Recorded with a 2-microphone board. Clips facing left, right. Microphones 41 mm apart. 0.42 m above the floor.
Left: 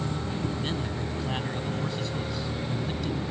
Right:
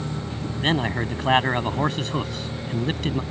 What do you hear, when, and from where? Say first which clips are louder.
0.6 s a man speaking: right 8 dB; 60° right (ahead or behind)